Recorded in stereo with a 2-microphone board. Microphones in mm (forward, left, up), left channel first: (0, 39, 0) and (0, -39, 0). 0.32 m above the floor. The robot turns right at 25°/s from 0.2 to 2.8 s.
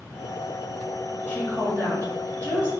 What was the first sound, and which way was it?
A woman speaking, 25° left (ahead or behind).